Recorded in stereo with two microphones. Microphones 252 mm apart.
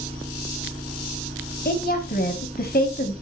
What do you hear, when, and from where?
0.0 s an engine running: 25° right (ahead or behind), 2 m
1.6 s a woman speaking: 40° left (ahead or behind), 1.8 m